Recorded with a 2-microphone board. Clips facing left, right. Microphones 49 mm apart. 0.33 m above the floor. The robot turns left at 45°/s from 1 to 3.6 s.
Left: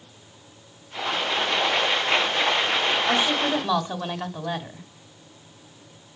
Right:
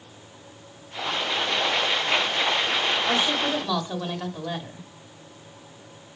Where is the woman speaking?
5° left (ahead or behind), 1.3 m; by 4.9 s 15° left (ahead or behind), 1.3 m.